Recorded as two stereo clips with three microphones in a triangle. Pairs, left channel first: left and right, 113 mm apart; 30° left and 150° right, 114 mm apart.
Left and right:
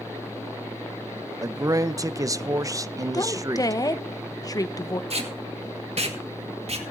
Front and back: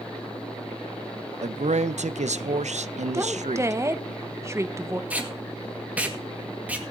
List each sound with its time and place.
1.4 s a man speaking: 150° right, 0.6 m
3.1 s a woman speaking: 145° left, 1.0 m
5.1 s tape being pulled: 75° right, 2 m